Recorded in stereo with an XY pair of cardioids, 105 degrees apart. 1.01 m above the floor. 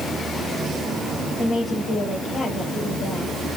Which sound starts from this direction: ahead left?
A woman speaking, at 1.4 s.